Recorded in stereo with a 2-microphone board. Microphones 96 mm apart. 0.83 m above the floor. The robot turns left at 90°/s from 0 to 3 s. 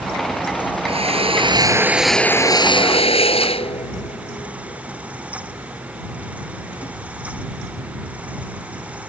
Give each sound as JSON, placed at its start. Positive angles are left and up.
{"t": 0.9, "sound": "a drill", "side_deg": -70}